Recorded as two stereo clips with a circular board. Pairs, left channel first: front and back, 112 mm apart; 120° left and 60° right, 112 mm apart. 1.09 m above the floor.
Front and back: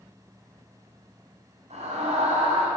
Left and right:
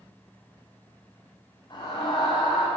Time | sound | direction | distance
1.7 | a scream | 170° left | 5.5 m